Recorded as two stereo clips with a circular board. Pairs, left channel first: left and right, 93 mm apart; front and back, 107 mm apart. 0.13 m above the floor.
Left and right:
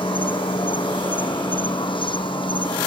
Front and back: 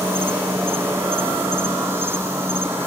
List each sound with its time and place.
0.0 s an insect: 110° left